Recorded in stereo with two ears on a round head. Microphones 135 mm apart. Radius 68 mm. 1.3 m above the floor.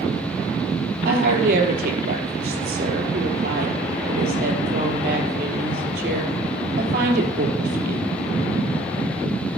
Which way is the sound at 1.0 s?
65° right (ahead or behind).